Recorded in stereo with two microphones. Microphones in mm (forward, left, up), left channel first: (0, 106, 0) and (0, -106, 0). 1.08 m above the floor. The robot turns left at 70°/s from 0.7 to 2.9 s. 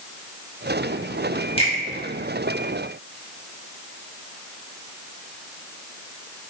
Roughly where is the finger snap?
Left.